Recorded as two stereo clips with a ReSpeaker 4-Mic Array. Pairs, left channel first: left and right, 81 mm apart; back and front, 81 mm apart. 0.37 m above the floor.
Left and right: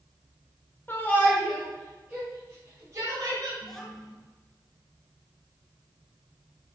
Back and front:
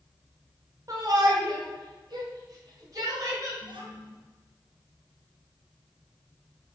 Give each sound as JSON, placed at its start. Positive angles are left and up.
{"t": 0.9, "sound": "a shout", "azimuth_deg": 30, "distance_m": 2.5}
{"t": 3.6, "sound": "a child speaking", "azimuth_deg": 5, "distance_m": 3.0}